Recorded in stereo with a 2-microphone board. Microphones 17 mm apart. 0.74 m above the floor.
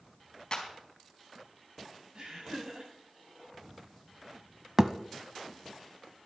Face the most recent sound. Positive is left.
turn(degrees=-30)  # may be behind; listen again after turning